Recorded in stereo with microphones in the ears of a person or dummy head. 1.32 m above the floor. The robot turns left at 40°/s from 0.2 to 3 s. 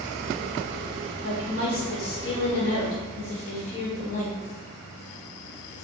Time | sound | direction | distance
1.2 | a woman speaking | 110° left | 1.1 m